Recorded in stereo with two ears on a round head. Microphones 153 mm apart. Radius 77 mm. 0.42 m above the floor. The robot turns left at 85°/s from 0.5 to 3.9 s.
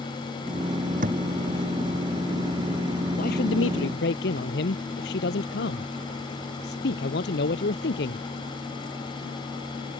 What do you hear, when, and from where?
1.0 s a thud: 45° right (ahead or behind); by 1.2 s 60° right (ahead or behind)
3.2 s a man speaking: 130° left; by 8.3 s 65° left